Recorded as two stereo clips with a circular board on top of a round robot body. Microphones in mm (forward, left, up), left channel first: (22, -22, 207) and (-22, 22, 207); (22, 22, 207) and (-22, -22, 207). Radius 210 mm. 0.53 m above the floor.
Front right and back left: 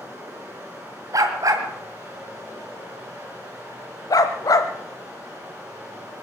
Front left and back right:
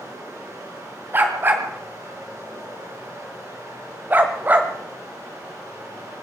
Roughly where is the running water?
Behind.